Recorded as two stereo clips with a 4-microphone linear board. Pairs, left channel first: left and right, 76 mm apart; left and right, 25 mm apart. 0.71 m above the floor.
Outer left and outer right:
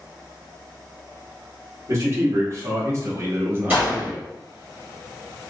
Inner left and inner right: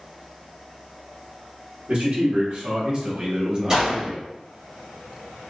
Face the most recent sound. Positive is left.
turn(degrees=-20)  # may be behind; listen again after turning